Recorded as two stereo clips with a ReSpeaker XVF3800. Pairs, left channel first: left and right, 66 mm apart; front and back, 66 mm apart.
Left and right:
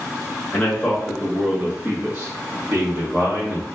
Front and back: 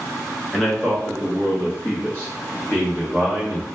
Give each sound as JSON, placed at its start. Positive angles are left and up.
{"t": 0.5, "sound": "a man speaking", "azimuth_deg": 75, "distance_m": 1.1}